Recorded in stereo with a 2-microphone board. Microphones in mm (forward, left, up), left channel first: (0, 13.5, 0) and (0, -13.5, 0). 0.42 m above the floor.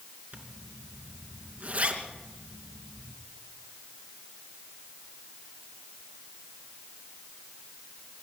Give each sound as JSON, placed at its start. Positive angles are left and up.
{"t": 0.3, "sound": "a zipper", "side_deg": -65, "distance_m": 3.0}